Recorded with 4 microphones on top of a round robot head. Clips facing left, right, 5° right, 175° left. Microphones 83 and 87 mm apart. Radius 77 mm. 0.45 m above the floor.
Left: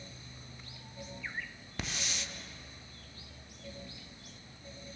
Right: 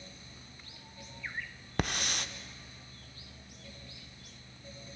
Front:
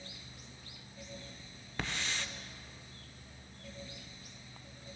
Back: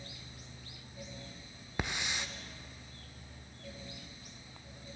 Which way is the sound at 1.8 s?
110° right.